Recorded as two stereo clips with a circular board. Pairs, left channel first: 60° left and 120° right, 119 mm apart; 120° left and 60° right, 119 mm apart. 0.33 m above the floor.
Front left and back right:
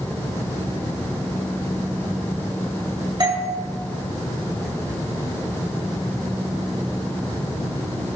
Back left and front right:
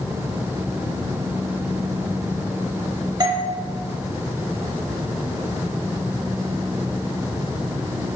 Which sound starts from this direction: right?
A doorbell, at 3.2 s.